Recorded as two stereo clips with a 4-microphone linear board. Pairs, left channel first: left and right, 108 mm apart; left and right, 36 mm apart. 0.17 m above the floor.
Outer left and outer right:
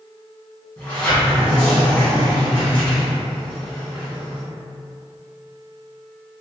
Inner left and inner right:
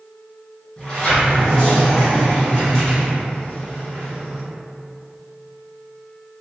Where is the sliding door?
20° left (ahead or behind), 1.7 m.